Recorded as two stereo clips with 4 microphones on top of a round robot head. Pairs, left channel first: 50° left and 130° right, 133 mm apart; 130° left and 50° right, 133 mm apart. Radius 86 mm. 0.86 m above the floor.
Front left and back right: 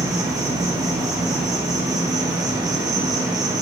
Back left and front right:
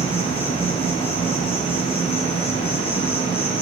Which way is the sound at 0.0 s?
170° left.